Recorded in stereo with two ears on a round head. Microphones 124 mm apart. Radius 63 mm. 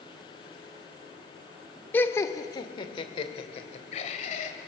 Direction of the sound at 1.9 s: 15° left (ahead or behind).